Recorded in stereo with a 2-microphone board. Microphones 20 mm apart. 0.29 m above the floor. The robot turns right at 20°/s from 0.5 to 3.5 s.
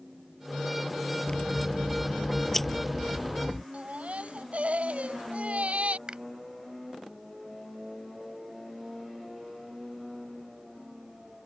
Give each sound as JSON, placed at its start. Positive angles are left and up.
{"t": 1.3, "sound": "scissors", "azimuth_deg": 140}
{"t": 3.7, "sound": "a baby crying", "side_deg": -70}
{"t": 6.1, "sound": "a finger snap", "side_deg": -45}